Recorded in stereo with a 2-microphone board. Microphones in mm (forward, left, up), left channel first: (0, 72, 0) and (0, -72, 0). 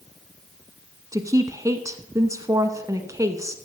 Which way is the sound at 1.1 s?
20° right (ahead or behind).